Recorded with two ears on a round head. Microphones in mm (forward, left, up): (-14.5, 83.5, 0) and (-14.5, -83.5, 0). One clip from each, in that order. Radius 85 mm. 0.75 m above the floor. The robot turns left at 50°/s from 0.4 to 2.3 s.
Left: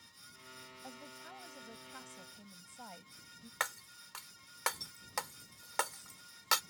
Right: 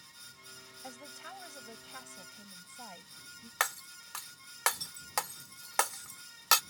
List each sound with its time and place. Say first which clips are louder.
0.8 s a woman speaking: right 6 dB; 100° right; by 3.5 s 170° right
3.6 s breaking glass: right 5 dB; 30° right (ahead or behind)